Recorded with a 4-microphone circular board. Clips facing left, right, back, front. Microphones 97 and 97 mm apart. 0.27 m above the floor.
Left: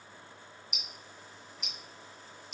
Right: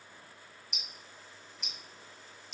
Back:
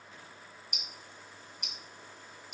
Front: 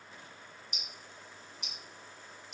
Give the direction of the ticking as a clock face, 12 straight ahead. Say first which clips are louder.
Left 2 dB, back 1 dB; 6 o'clock.